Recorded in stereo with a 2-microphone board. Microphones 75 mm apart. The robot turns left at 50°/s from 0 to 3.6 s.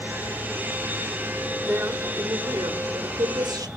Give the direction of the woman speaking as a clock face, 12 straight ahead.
1 o'clock.